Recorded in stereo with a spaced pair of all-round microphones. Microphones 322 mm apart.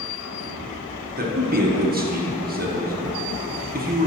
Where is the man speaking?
30° right (ahead or behind), 0.9 m.